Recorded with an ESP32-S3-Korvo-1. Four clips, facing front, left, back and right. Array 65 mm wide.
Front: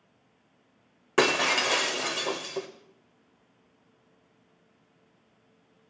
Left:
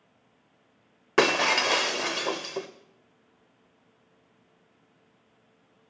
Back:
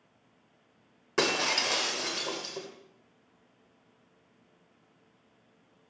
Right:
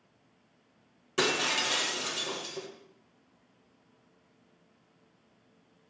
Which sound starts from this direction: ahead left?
Breaking glass, at 1.2 s.